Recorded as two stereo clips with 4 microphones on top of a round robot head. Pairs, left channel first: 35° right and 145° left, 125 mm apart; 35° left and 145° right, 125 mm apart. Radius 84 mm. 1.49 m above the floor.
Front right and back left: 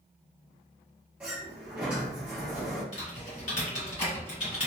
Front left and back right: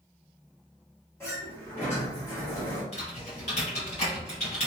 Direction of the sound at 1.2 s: 80° left.